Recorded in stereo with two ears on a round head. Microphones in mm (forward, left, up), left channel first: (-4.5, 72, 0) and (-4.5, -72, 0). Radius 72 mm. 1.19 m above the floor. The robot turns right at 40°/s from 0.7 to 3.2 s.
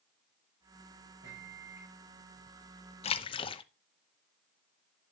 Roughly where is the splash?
Left.